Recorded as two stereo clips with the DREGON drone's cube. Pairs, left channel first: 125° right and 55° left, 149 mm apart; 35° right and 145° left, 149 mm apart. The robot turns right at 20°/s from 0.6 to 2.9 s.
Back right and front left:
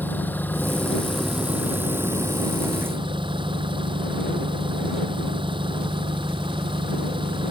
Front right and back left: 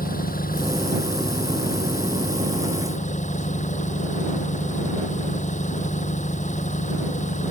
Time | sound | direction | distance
0.0 | an engine running | 45° right | ?